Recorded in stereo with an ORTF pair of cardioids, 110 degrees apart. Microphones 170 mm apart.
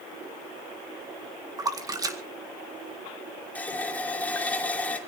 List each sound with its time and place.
1.6 s a splash: 20° right, 2 m
3.5 s a running tap: 10° left, 2.5 m